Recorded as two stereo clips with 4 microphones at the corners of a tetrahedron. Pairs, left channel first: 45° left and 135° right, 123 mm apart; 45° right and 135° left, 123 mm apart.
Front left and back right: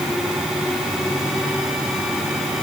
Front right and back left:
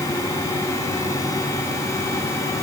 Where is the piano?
No piano in this recording.